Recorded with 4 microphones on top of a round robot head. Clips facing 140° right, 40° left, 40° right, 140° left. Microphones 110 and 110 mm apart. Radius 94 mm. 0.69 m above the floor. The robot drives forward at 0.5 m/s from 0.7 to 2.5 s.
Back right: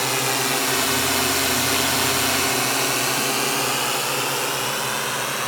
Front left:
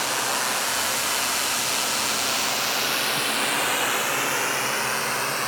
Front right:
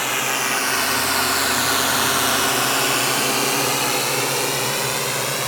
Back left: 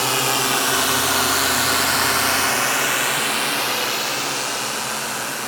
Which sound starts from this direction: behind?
A drone, at 0.0 s.